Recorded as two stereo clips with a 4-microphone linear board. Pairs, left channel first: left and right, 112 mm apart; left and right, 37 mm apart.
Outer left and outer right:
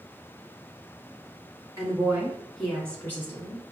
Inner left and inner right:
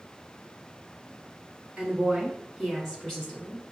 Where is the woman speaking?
30° right (ahead or behind), 1.1 m; by 3.6 s 20° left (ahead or behind), 2 m.